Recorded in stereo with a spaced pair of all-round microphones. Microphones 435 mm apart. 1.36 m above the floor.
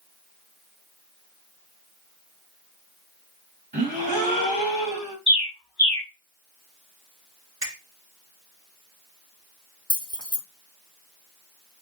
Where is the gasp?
20° right (ahead or behind), 1.5 m.